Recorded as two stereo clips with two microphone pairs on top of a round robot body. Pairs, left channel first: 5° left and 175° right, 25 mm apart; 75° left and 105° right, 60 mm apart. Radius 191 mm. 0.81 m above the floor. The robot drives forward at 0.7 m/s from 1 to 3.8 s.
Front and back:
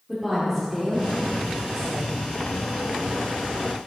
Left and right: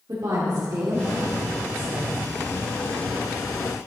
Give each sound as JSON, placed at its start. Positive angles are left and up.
{"t": 0.1, "sound": "a woman speaking", "azimuth_deg": -100, "distance_m": 2.5}